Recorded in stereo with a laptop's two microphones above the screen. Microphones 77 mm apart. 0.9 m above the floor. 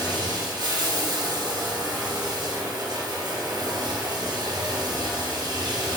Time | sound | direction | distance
0.0 | running water | 70° right (ahead or behind) | 2.5 m